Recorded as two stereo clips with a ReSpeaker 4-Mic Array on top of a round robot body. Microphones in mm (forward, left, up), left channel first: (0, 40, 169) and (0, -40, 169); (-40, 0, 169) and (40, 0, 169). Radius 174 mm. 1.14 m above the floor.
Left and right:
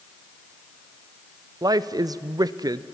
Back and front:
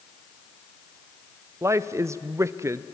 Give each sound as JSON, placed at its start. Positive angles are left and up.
{"t": 1.6, "sound": "a woman speaking", "azimuth_deg": -55, "distance_m": 0.6}